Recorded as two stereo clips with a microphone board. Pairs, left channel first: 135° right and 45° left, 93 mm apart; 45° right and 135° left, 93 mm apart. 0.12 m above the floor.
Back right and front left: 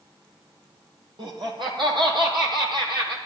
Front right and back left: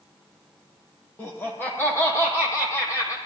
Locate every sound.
1.2 s laughter: 25° left, 4 m; by 3.2 s 10° left, 5 m